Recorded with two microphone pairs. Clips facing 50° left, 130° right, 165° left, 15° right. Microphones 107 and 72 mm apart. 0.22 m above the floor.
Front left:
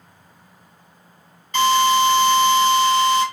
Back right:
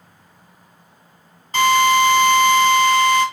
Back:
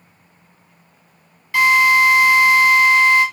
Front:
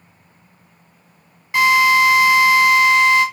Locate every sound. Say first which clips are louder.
1.5 s a drill: back right 1 dB, even; 85° right, 2.5 m